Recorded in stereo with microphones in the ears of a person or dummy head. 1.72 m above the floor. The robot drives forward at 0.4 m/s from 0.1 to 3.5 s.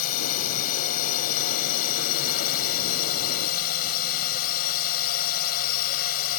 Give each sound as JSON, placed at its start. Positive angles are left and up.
{"t": 0.0, "sound": "a drone", "side_deg": 45}